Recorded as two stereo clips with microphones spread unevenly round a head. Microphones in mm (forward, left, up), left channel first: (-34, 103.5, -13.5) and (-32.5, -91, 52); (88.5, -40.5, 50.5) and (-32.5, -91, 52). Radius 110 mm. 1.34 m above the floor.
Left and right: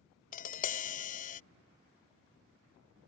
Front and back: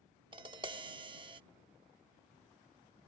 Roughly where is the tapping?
Behind left.